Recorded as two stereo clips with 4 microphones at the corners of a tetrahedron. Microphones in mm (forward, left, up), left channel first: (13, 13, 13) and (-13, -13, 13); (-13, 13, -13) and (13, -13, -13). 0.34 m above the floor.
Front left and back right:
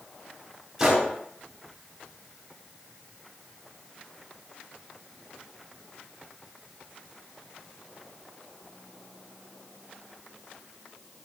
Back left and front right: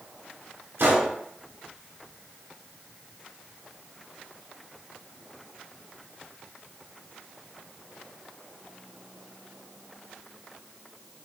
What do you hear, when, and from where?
0.8 s a gunshot: 55° right, 0.7 m